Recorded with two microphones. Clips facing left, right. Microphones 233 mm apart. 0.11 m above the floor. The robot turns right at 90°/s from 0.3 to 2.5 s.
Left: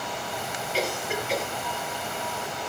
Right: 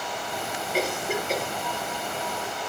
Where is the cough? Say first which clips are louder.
Right 2 dB; 55° right (ahead or behind), 3 m; by 1.5 s 35° right (ahead or behind), 3 m.